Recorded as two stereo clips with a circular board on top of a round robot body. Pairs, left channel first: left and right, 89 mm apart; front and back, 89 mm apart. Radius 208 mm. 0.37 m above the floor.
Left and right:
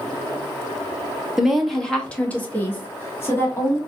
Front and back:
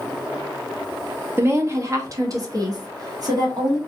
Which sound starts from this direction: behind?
A woman speaking, at 1.4 s.